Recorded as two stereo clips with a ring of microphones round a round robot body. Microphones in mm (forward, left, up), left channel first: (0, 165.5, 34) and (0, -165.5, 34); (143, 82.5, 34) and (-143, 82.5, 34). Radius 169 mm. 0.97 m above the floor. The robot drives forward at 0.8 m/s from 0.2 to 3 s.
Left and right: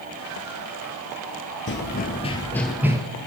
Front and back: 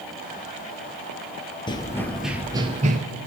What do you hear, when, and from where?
1.7 s running footsteps: 60° left, 1.1 m; by 3.0 s 160° right, 1.0 m